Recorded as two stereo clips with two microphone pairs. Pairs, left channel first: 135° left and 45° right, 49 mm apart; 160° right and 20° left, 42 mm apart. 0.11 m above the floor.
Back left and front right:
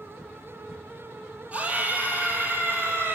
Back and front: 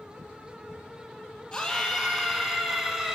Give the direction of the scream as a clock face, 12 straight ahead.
3 o'clock.